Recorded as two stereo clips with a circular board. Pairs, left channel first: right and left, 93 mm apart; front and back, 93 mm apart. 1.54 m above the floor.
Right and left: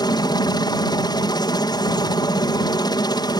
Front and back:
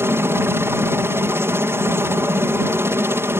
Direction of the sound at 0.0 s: 120° right.